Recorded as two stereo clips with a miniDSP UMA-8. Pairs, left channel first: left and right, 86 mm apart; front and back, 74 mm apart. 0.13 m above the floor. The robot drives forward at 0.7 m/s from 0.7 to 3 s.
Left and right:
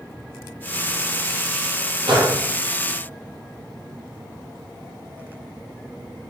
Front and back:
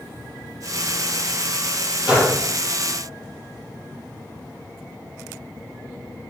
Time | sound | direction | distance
2.1 | a gunshot | 105° right | 3.5 m